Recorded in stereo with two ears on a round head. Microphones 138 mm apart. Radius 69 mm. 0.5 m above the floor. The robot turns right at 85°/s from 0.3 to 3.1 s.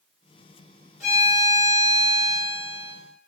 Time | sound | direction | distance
1.0 | a violin | 125° left | 1.0 m